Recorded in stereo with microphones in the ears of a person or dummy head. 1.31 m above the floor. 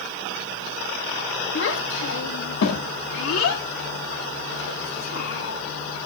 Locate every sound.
1.6 s a child speaking: 65° left (ahead or behind), 1.8 m; by 5.6 s 90° left, 4 m